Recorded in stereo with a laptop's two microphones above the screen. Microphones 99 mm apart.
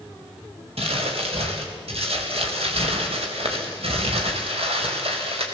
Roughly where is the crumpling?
Right.